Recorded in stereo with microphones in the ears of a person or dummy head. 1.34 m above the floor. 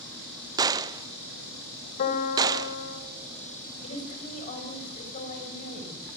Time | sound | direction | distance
0.6 | a gunshot | 15° right (ahead or behind) | 0.5 m
2.0 | a piano | 45° left (ahead or behind) | 3 m
3.8 | a woman speaking | 40° left (ahead or behind) | 6.5 m